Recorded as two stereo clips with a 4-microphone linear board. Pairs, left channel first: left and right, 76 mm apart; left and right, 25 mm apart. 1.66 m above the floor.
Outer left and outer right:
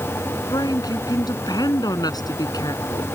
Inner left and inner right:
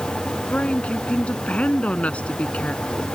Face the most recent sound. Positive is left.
turn(degrees=60)  # may be behind; listen again after turning